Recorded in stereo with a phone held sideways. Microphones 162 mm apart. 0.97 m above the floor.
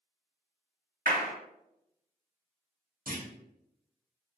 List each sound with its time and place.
1.1 s a clap: 60° right (ahead or behind), 0.8 m
3.1 s a clunk: 60° right (ahead or behind), 1.0 m